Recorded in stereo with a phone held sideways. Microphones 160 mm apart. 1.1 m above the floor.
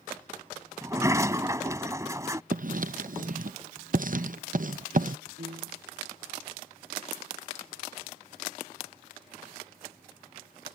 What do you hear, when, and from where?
0.8 s a sliding door: 20° right (ahead or behind)
2.5 s writing: 60° right (ahead or behind)
5.4 s a piano: 70° right (ahead or behind)